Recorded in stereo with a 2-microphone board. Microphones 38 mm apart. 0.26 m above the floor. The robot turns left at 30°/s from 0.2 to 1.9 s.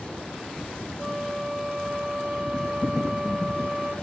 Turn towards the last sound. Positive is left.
turn(degrees=-25)  # may be behind; listen again after turning